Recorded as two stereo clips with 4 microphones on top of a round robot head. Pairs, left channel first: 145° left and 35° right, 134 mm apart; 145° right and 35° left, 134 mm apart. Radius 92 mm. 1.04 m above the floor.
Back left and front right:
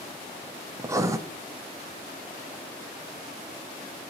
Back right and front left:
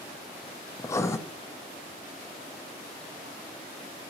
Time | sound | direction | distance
0.8 | writing | 90° right | 0.6 m